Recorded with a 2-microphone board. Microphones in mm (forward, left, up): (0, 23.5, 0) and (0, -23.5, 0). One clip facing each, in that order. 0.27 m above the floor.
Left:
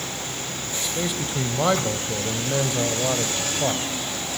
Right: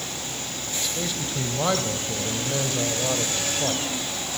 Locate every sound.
0.8 s a man speaking: 15° left (ahead or behind), 1.3 m